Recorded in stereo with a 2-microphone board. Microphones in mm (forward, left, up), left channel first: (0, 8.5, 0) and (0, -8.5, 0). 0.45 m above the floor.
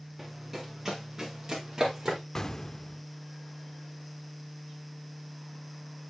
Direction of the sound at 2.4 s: 20° left (ahead or behind).